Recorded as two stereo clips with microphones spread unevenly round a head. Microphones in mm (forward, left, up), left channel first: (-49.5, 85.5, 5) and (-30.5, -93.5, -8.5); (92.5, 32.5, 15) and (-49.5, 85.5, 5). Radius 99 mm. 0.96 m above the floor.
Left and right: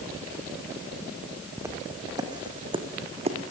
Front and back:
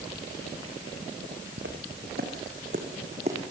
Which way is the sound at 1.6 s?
160° right.